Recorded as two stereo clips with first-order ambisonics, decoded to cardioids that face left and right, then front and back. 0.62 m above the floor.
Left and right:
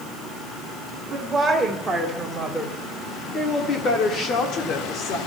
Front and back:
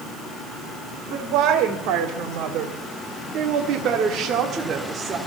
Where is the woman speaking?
170° right, 2.0 m; by 5.2 s 115° left, 1.8 m.